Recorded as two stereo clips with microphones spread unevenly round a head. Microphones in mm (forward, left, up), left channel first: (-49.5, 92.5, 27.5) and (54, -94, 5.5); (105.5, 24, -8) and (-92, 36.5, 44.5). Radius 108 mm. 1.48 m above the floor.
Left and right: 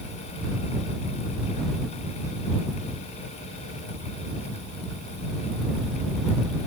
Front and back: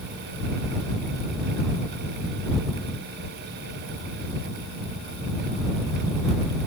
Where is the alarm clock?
I don't hear an alarm clock.